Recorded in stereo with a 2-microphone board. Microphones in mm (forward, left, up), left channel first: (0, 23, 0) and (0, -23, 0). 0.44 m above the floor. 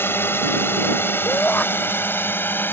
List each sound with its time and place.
0.0 s a drone: 60° left (ahead or behind); by 2.7 s 55° left (ahead or behind)
1.2 s a shout: 35° left (ahead or behind)